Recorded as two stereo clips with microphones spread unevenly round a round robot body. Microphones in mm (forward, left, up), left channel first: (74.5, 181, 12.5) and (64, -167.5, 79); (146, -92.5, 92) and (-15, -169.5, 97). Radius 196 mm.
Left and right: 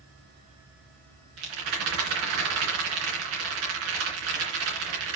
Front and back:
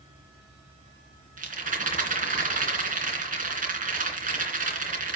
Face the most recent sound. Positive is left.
turn(degrees=-110)